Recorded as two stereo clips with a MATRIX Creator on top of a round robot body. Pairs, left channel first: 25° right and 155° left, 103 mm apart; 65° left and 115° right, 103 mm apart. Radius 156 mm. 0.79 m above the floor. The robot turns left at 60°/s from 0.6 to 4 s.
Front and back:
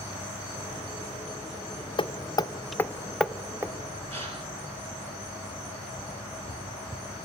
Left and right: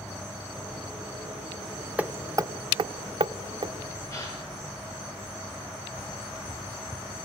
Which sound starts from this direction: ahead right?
Hammering, at 2.0 s.